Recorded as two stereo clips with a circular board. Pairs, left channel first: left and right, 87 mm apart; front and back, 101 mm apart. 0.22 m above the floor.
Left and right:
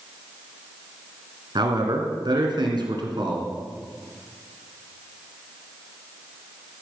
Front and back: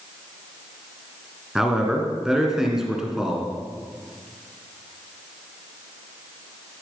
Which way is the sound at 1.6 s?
95° right.